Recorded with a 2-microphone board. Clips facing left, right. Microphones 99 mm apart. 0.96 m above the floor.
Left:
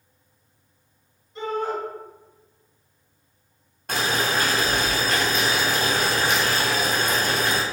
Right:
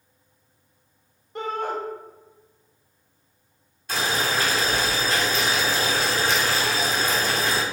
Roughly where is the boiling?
Left.